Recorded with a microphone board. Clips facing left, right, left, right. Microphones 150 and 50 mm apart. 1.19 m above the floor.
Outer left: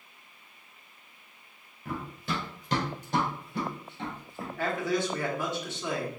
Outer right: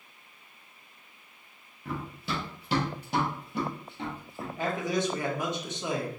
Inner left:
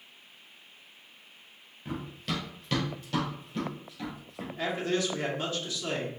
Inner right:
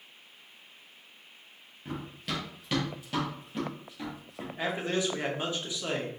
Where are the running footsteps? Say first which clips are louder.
Even, inner left 1 dB; centre (ahead or behind), 1.6 m; by 4.5 s 20° right (ahead or behind), 2.5 m.